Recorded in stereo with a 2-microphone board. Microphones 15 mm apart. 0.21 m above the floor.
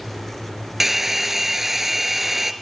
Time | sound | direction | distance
0.8 | a hair dryer | 20° right (ahead or behind) | 1.0 m